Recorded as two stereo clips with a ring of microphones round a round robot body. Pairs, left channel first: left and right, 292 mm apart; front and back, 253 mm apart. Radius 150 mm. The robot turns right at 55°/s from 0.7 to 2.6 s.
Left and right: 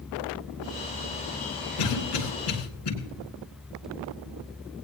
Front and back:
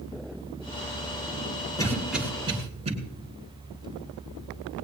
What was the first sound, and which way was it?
A cough, 75° left.